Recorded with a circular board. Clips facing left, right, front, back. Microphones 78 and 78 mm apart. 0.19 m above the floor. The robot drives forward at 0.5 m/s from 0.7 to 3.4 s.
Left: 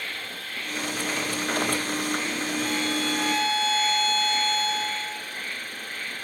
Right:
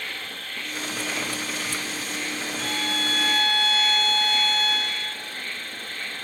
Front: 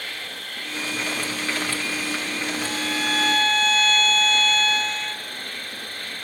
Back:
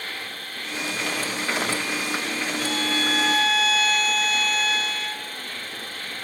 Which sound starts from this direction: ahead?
An insect, at 0.0 s.